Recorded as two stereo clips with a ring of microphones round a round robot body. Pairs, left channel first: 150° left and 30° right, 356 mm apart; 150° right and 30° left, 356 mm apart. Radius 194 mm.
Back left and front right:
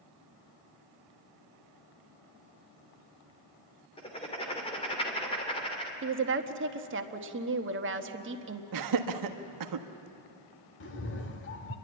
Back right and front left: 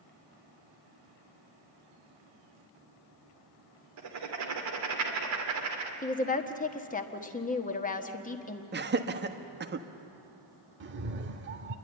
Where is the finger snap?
I don't hear a finger snap.